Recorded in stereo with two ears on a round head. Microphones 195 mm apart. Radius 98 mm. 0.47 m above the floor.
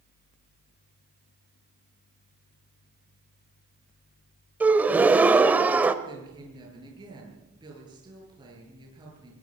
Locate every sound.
4.6 s a gasp: 10° right (ahead or behind), 1.2 m
6.0 s a woman speaking: 20° right (ahead or behind), 9.5 m